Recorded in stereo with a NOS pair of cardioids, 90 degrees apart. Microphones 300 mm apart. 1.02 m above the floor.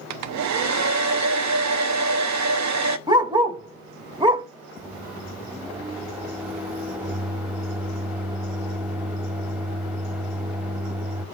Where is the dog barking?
15° right, 1.6 m.